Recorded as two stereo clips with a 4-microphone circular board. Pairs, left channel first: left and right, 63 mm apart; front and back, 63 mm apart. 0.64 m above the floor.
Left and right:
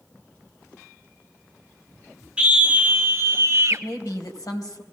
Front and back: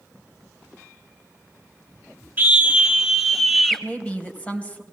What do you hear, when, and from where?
2.4 s a scream: 155° right, 1.0 m; by 3.8 s 80° right, 1.2 m
3.7 s a woman speaking: 70° left, 3 m